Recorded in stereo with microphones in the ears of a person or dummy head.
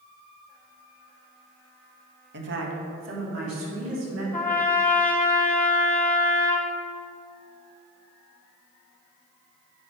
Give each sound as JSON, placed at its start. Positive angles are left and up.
{"t": 2.3, "sound": "a woman speaking", "side_deg": -55, "distance_m": 1.2}
{"t": 4.3, "sound": "a trumpet", "side_deg": 10, "distance_m": 0.5}